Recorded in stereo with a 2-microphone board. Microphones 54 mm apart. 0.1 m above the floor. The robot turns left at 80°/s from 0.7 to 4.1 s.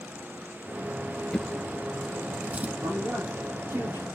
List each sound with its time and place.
1.3 s a drawer: 15° left (ahead or behind), 0.8 m; by 2.7 s 30° right (ahead or behind), 0.8 m
2.8 s a man speaking: 40° right, 5 m; by 4.1 s 140° right, 5 m